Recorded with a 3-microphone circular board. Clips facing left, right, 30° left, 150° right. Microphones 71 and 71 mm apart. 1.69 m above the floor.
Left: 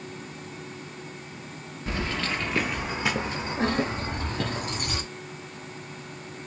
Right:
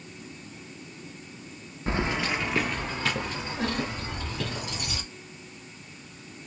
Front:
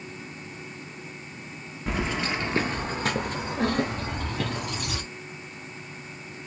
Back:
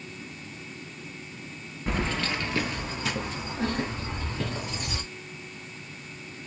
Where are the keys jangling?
60° right, 1.0 m; by 5.0 s 50° left, 2.5 m.